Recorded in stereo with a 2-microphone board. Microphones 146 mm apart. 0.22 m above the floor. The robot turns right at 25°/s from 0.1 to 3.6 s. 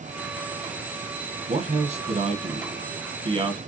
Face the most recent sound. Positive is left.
turn(degrees=-50)